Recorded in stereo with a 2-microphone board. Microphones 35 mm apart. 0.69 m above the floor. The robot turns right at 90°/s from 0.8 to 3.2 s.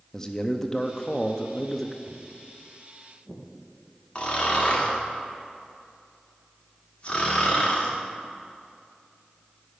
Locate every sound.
0.1 s a man speaking: 20° left (ahead or behind), 0.6 m; by 2.0 s 10° left (ahead or behind), 0.6 m
2.1 s footsteps: 60° right (ahead or behind), 1.3 m; by 3.4 s 10° right (ahead or behind), 2.5 m
4.2 s snoring: 35° left (ahead or behind), 1.7 m